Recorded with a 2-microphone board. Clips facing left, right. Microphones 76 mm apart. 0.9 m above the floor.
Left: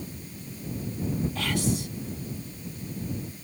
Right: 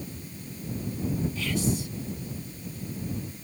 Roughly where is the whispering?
Left.